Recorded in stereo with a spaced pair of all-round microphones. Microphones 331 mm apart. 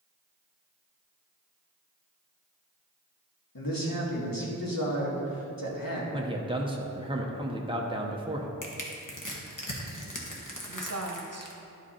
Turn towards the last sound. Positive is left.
turn(degrees=-50)  # may be behind; listen again after turning